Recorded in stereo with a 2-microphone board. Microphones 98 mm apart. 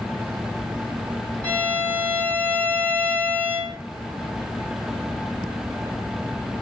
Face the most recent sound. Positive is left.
turn(degrees=15)  # may be behind; listen again after turning